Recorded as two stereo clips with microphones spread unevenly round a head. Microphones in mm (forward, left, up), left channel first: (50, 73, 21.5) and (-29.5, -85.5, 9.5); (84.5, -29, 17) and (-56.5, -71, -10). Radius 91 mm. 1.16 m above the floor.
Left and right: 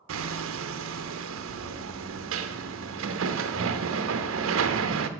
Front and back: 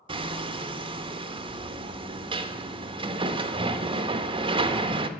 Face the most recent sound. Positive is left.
turn(degrees=-105)